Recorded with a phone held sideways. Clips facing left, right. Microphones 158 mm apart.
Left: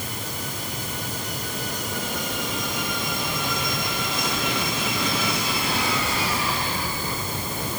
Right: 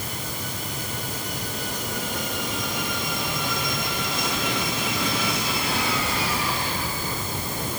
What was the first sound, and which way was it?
Only background noise.